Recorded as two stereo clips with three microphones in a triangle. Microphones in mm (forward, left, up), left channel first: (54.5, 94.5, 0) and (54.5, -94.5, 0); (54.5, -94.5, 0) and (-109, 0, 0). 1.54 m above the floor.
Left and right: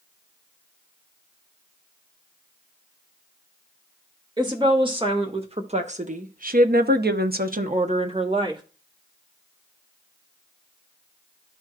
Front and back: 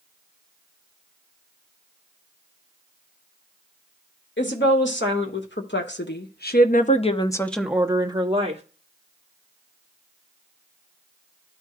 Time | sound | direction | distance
4.4 | a woman speaking | 25° right | 2 m